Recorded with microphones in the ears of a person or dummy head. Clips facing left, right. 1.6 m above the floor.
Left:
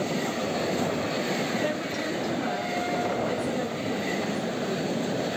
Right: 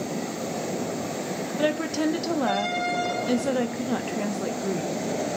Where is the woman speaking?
70° right (ahead or behind), 0.5 m.